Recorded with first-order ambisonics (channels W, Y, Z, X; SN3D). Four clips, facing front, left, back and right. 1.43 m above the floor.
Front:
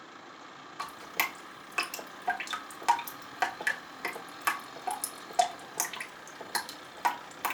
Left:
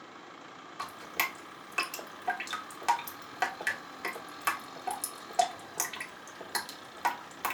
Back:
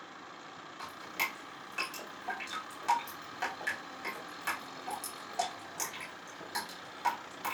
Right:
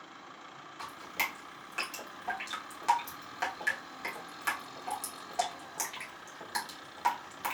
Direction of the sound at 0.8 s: 30° left.